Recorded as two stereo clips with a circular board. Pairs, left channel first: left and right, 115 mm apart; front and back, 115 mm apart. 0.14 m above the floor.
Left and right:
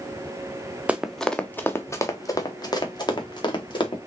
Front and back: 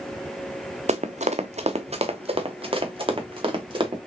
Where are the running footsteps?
170° right, 0.6 m; by 4.0 s 135° left, 2 m.